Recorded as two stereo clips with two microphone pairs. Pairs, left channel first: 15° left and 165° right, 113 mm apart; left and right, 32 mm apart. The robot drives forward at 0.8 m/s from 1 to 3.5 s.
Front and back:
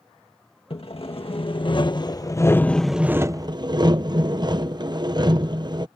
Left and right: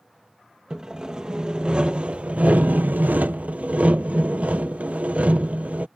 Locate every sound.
0.7 s sawing: 20° right; by 5.9 s 120° right